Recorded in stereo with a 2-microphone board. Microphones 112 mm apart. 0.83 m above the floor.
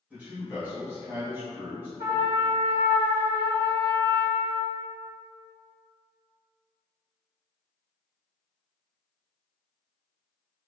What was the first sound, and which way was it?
A man speaking, 15° right (ahead or behind).